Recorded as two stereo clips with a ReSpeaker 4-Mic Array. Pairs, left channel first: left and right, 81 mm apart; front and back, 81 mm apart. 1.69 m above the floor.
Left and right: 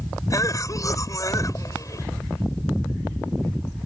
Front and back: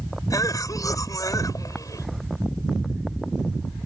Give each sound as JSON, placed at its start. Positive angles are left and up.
{"t": 0.3, "sound": "a cough", "azimuth_deg": 45}